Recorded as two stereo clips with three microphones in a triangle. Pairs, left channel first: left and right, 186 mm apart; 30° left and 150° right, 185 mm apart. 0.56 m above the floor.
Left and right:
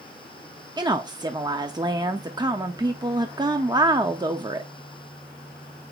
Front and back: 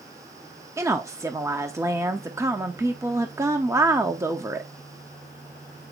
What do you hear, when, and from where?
0.8 s a woman speaking: 100° right, 0.8 m